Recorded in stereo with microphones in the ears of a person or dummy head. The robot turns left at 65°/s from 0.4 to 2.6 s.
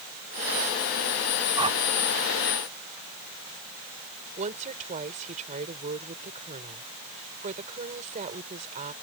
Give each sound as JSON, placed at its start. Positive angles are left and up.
{"t": 1.6, "sound": "a whoosh", "side_deg": -20}
{"t": 4.4, "sound": "a woman speaking", "side_deg": -35}